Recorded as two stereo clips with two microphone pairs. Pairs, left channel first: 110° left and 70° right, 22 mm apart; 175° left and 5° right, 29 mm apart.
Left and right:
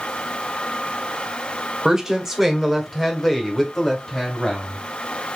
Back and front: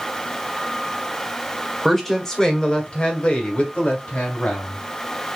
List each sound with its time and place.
1.9 s a woman speaking: 100° right, 1.4 m; by 4.8 s straight behind, 2.5 m